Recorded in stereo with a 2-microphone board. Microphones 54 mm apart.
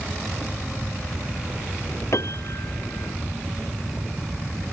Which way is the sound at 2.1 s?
60° left (ahead or behind).